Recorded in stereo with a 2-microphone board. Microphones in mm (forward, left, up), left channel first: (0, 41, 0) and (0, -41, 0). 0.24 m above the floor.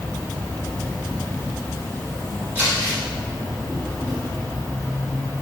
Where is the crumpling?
25° right (ahead or behind), 1.6 m.